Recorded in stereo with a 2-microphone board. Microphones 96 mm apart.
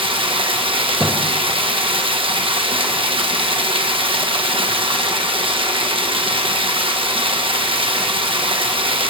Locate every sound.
0.0 s running water: 75° right (ahead or behind), 1.4 m
1.0 s a thud: 10° left (ahead or behind), 1.5 m